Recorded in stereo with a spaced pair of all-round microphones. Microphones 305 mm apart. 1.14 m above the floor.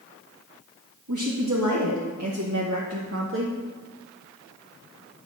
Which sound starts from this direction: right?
A woman speaking, at 1.1 s.